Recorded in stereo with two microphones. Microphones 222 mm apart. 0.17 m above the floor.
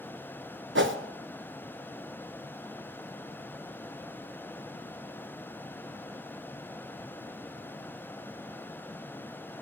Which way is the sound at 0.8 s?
60° right (ahead or behind).